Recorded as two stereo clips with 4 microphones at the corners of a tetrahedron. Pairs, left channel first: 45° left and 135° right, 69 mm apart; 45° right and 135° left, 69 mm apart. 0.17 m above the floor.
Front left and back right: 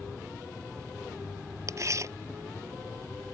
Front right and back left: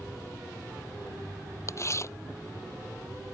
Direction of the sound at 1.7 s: 90° right.